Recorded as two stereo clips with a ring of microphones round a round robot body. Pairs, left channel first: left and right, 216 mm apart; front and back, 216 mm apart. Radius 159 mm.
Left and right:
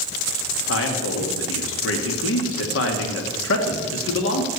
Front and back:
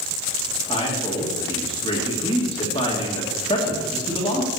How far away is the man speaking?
About 1.9 m.